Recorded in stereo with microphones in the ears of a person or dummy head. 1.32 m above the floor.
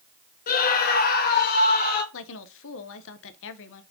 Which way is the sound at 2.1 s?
70° left (ahead or behind).